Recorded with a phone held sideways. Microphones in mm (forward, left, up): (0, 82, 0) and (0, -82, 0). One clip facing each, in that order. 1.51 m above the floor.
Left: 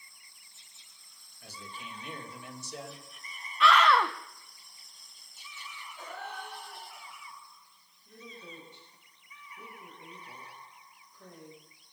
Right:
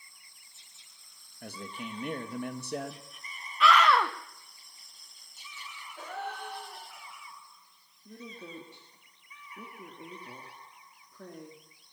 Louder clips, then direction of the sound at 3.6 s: Even; centre (ahead or behind).